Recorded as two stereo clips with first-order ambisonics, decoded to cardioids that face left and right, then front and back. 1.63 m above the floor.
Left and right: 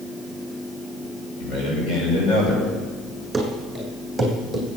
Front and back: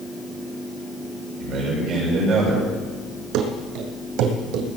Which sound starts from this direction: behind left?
A man speaking, at 1.4 s.